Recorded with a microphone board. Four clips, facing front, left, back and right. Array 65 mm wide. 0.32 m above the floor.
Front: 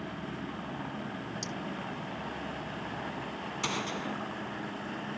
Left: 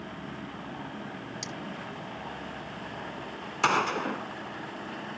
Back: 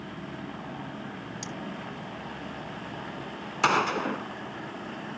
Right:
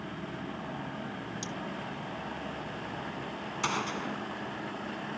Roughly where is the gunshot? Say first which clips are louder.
Left 8 dB, back 12 dB; behind left.